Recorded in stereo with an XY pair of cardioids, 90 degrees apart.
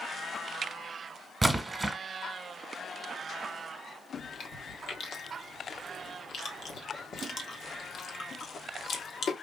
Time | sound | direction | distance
1.4 | a splash | 15° right | 1.4 m
4.1 | chewing | 65° left | 1.2 m